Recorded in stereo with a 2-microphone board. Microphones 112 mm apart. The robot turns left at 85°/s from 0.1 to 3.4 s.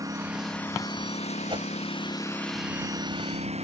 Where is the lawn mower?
150° right; by 3.6 s 70° right.